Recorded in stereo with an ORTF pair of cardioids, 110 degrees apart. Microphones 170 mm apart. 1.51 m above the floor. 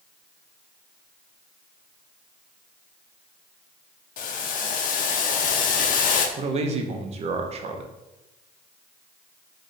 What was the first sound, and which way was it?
Boiling, 55° left.